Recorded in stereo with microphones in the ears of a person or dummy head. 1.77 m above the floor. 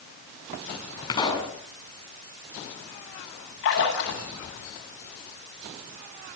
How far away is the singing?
No singing in this recording.